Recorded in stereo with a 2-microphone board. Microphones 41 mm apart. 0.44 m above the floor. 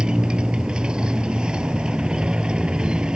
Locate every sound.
0.0 s a motorcycle: 20° right (ahead or behind)